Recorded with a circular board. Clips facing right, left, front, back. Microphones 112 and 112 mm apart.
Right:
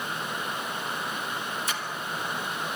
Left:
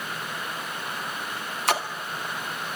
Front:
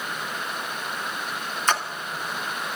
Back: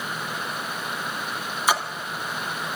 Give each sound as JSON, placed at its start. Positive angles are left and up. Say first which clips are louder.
{"t": 1.7, "sound": "a splash", "louder": "left 8 dB, back 1 dB", "azimuth_deg": 100, "distance_m": 2.0}